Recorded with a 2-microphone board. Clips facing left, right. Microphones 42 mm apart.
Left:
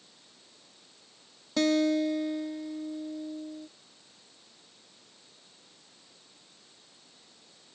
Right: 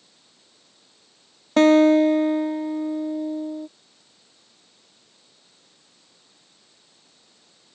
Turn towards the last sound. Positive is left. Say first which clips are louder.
# right 11 dB
turn(degrees=-45)  # may be behind; listen again after turning